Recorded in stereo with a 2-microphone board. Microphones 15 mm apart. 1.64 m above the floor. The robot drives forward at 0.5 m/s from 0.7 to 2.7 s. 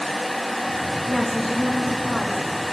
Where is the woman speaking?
35° left (ahead or behind), 2.0 m; by 2.4 s 25° left (ahead or behind), 2.5 m.